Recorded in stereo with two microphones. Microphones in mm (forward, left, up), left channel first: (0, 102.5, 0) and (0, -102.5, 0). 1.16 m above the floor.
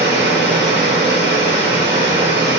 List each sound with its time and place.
0.0 s running water: 60° right (ahead or behind), 1.8 m